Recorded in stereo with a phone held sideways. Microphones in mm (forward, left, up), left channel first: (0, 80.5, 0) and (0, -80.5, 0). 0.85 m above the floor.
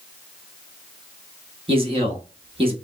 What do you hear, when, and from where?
1.7 s a man speaking: 35° right (ahead or behind), 1.3 m